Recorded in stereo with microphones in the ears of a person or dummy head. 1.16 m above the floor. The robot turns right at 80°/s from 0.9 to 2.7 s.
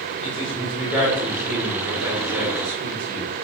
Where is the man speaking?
Centre (ahead or behind), 1.1 m; by 3.3 s 35° right (ahead or behind), 1.1 m.